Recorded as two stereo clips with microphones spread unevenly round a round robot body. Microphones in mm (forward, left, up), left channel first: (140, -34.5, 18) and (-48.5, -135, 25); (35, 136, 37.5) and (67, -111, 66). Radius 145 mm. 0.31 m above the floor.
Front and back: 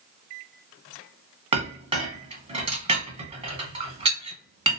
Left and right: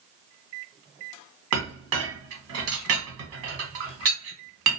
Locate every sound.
1.5 s a clink: 90° right, 1.3 m